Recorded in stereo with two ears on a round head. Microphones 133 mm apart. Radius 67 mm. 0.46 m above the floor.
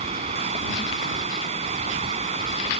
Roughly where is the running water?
Right.